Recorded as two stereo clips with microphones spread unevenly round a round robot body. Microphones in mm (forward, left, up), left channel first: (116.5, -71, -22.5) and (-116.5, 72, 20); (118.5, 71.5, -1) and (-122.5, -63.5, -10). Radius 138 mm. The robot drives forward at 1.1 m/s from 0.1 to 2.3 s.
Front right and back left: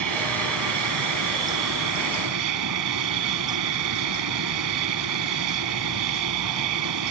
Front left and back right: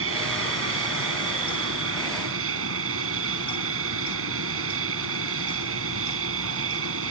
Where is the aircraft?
165° left; by 7.1 s 170° left.